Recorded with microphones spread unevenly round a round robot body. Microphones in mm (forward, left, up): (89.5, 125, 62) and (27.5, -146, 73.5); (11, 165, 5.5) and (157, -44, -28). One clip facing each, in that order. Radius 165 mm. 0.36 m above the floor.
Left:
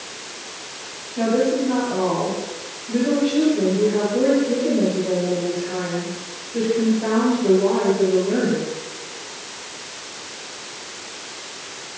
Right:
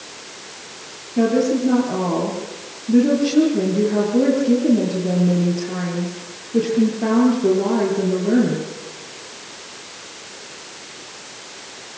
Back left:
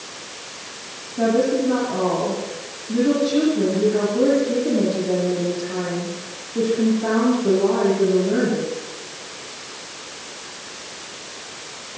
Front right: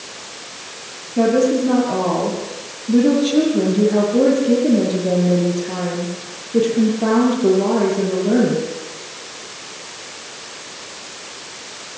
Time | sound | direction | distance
1.2 | a woman speaking | 75° right | 8.5 m